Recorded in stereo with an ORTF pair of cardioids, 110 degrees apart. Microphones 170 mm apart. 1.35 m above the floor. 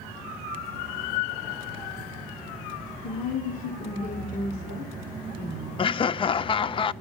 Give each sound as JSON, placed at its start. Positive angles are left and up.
{"t": 3.0, "sound": "a woman speaking", "azimuth_deg": 65, "distance_m": 3.0}
{"t": 5.8, "sound": "laughter", "azimuth_deg": 30, "distance_m": 0.6}